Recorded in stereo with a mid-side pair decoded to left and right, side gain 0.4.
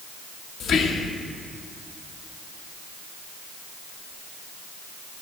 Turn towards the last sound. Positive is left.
turn(degrees=70)